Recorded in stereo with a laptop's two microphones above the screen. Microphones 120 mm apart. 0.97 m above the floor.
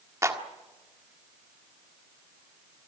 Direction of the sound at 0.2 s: 25° right (ahead or behind).